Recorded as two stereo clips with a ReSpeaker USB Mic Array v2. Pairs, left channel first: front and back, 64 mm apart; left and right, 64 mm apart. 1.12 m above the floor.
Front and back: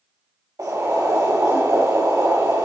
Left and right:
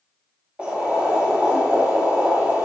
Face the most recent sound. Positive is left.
turn(degrees=-160)